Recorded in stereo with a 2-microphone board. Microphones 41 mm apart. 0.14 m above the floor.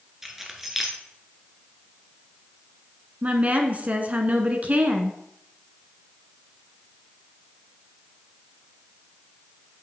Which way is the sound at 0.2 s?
5° right (ahead or behind).